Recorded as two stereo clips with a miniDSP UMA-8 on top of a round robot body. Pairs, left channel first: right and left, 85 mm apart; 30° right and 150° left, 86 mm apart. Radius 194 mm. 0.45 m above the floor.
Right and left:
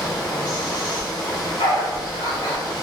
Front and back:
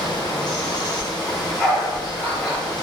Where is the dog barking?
115° right, 0.6 m.